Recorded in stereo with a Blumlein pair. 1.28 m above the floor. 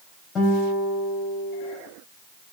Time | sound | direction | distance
0.3 | a guitar | 25° left | 3.5 m